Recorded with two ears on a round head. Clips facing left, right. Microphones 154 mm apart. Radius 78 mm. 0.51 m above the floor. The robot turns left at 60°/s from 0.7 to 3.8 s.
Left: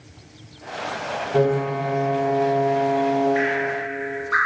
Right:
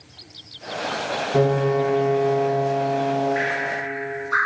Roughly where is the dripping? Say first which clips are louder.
Left 3 dB; left.